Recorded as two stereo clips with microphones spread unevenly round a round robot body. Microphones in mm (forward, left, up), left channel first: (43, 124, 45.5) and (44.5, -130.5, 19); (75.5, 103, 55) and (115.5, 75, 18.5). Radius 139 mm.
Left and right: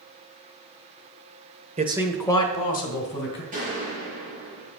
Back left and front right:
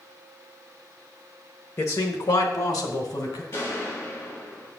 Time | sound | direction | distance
1.8 | a man speaking | 140° right | 1.1 m
3.5 | a gunshot | 155° right | 5 m